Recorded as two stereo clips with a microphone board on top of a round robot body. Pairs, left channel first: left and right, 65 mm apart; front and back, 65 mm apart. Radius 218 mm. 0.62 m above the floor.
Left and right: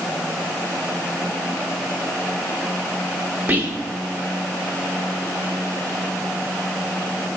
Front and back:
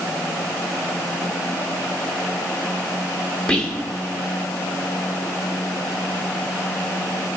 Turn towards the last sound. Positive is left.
turn(degrees=-60)